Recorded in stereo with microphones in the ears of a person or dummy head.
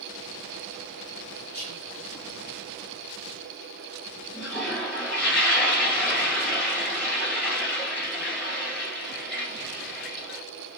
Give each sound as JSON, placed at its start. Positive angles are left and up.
{"t": 1.5, "sound": "whispering", "side_deg": 50, "distance_m": 1.2}
{"t": 4.3, "sound": "a toilet flushing", "side_deg": 10, "distance_m": 2.0}